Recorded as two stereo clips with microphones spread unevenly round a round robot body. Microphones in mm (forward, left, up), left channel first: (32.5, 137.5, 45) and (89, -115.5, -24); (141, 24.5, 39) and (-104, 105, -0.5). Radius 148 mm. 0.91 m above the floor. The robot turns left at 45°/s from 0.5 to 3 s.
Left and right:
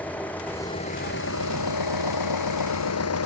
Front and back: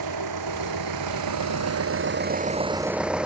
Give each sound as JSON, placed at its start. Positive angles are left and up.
{"t": 0.0, "sound": "an engine running", "azimuth_deg": -170}